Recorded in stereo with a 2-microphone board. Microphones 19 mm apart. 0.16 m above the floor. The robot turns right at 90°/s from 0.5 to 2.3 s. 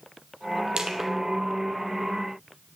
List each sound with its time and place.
0.8 s crushing: 45° right (ahead or behind), 1.5 m; by 1.1 s 15° right (ahead or behind), 1.5 m